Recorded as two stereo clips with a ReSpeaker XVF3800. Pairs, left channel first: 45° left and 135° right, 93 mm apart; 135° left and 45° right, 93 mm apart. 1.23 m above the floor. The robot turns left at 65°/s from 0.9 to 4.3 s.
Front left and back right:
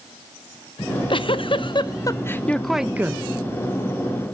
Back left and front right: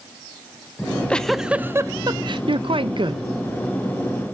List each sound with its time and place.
0.8 s a giggle: 75° left, 0.5 m; by 3.2 s 80° right, 0.5 m